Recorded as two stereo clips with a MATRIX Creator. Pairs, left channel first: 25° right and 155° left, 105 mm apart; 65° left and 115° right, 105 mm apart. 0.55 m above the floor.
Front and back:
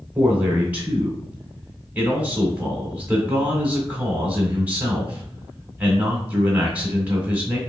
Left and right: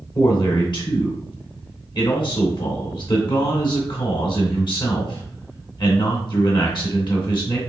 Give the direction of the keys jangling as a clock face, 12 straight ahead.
I don't hear keys jangling.